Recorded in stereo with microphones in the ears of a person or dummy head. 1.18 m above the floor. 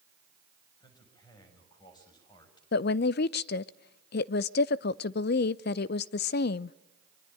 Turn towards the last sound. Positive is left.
turn(degrees=55)  # may be behind; listen again after turning